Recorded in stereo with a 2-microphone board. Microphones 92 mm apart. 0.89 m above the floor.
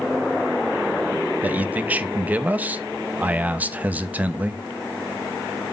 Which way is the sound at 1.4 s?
15° right (ahead or behind).